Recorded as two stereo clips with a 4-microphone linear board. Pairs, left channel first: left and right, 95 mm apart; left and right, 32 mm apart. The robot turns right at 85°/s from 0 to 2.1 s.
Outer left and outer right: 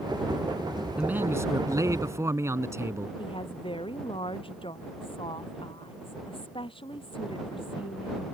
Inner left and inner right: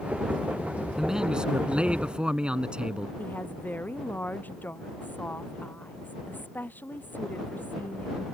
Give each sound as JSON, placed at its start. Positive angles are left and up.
{"t": 1.0, "sound": "a man speaking", "azimuth_deg": -160}
{"t": 3.2, "sound": "a woman speaking", "side_deg": 70}